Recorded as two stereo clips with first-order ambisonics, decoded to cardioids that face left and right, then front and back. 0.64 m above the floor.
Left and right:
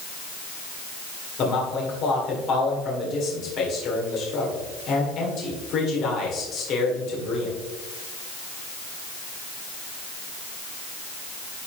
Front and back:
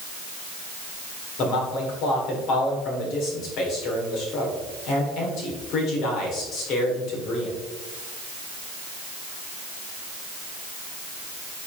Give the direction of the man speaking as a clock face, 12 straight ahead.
11 o'clock.